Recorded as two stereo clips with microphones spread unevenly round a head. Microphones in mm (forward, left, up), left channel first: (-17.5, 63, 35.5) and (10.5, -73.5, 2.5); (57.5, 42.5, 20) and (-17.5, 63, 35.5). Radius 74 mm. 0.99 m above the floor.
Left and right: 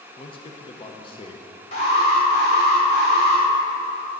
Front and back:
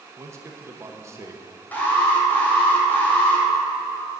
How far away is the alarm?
About 3 m.